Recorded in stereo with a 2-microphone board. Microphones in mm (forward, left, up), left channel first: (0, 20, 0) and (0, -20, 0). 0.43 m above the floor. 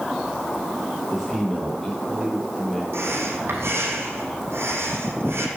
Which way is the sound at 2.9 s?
85° right.